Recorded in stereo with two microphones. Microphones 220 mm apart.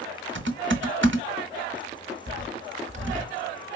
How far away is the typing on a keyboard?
About 1.0 m.